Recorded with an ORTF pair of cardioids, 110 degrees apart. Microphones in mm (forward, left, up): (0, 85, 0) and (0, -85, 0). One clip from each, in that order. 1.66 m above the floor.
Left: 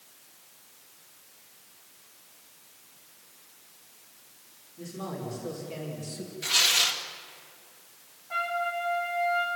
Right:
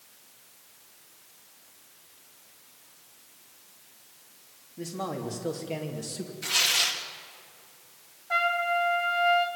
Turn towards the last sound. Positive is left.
turn(degrees=-55)